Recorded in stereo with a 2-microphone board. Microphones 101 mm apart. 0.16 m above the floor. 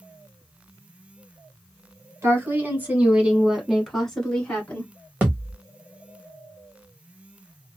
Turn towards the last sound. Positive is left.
turn(degrees=-15)  # may be behind; listen again after turning